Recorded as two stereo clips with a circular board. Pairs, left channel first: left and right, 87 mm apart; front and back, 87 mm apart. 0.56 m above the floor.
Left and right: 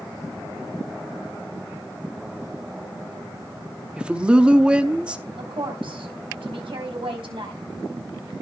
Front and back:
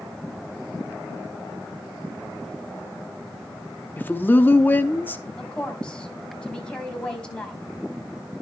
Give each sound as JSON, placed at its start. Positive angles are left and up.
{"t": 4.0, "sound": "a woman speaking", "azimuth_deg": -30, "distance_m": 0.8}
{"t": 5.4, "sound": "a woman speaking", "azimuth_deg": -80, "distance_m": 3.0}